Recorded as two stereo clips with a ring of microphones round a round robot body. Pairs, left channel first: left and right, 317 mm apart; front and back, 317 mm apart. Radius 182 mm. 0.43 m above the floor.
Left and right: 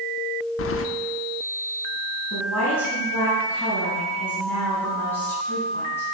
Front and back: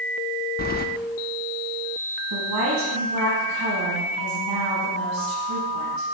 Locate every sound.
0.6 s keys jangling: 55° left, 0.7 m
2.3 s a woman speaking: 175° left, 3.5 m